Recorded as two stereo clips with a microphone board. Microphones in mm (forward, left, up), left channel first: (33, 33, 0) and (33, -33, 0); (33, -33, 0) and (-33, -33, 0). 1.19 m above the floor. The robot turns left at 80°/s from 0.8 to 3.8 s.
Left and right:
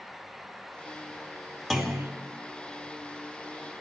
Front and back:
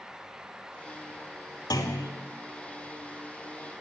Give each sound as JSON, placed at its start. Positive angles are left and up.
{"t": 1.7, "sound": "a clunk", "azimuth_deg": 5, "distance_m": 2.5}